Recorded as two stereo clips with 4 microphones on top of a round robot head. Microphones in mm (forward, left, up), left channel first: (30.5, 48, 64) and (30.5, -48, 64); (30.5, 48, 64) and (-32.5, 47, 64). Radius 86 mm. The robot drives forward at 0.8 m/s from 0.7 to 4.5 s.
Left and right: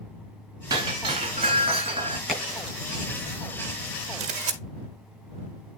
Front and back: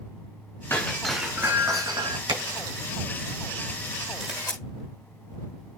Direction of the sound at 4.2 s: 95° right.